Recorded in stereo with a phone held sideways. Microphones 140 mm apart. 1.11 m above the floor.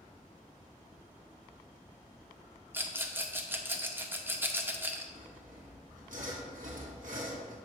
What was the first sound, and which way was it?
A rattle, 15° right (ahead or behind).